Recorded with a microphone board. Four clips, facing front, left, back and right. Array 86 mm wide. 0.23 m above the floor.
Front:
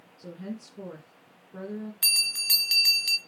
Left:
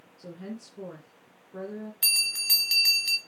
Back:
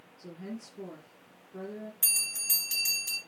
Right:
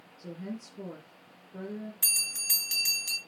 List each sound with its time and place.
0.2 s a woman speaking: 50° left, 2.5 m
2.0 s a bell: 25° left, 1.4 m